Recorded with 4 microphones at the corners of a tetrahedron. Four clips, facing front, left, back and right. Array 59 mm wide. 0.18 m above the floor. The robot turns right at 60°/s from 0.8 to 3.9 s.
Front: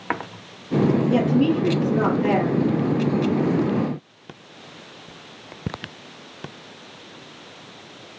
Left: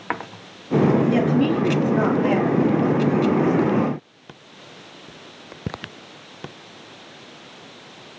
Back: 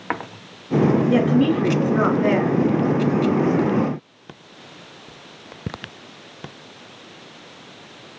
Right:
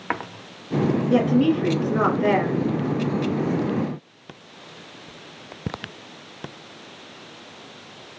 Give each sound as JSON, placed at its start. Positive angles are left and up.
{"t": 1.1, "sound": "a woman speaking", "azimuth_deg": 180, "distance_m": 2.0}